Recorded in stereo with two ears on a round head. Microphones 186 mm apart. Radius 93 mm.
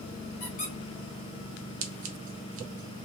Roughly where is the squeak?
Left.